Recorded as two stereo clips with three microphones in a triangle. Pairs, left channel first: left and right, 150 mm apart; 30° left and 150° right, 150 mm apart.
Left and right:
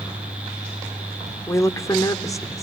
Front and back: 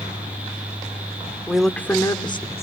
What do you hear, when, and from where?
1.5 s a woman speaking: 135° left, 0.8 m; by 2.6 s 30° left, 0.9 m